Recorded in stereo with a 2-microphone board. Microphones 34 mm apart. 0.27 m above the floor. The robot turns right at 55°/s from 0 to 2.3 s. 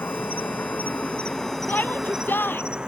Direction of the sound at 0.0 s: 80° left.